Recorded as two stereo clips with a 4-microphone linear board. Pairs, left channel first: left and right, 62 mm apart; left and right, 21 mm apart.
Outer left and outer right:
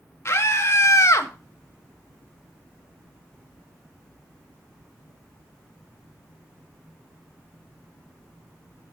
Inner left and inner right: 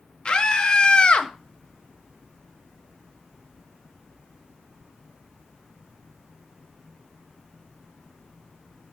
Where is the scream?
50° left (ahead or behind), 2 m; by 1.3 s 55° left (ahead or behind), 1.4 m.